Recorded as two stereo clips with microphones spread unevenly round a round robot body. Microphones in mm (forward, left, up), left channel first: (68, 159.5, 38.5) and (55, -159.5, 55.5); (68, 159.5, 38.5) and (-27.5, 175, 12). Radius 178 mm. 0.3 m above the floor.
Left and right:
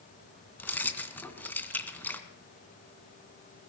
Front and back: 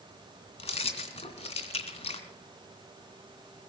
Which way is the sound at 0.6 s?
5° left.